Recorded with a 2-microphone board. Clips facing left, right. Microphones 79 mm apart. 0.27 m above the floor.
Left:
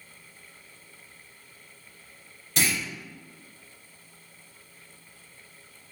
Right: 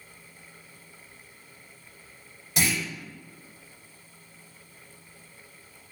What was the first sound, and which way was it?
A clunk, 5° right (ahead or behind).